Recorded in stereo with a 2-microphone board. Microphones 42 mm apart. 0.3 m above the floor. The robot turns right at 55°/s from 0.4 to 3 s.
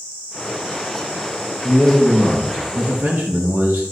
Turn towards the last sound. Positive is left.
turn(degrees=-110)